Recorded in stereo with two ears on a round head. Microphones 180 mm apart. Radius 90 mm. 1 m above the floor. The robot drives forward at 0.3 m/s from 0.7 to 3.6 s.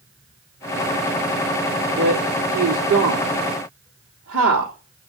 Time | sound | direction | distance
2.0 | a woman speaking | 70° right (ahead or behind) | 3 m